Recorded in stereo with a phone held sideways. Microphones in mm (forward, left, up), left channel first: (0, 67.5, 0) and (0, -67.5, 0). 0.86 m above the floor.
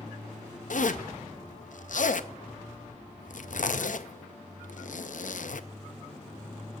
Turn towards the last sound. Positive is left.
turn(degrees=70)  # may be behind; listen again after turning